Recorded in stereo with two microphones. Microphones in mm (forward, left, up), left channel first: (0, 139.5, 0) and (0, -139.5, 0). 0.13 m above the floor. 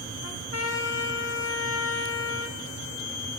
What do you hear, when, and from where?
0.2 s a trumpet: 60° left (ahead or behind), 1.6 m